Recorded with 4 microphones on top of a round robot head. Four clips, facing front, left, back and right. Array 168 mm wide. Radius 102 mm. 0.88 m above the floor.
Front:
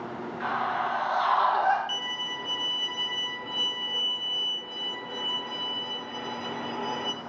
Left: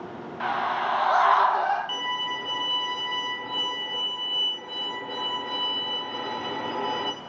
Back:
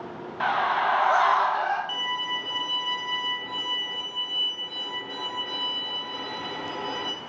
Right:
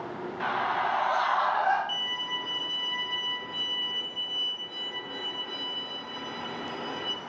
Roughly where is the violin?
Left.